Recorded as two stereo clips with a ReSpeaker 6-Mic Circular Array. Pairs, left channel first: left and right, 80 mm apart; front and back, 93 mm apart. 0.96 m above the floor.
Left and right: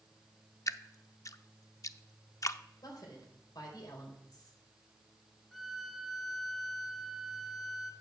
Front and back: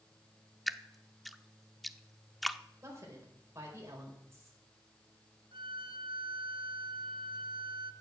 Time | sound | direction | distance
0.7 | dripping | 90° left | 0.6 m
2.8 | a woman speaking | 120° left | 4.5 m
5.5 | a violin | straight behind | 2.5 m